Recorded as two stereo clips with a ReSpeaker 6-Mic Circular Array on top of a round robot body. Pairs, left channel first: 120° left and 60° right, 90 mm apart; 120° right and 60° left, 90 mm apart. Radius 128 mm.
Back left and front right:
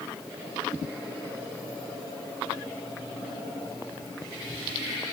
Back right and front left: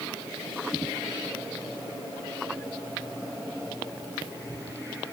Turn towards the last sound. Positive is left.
No sound to turn to.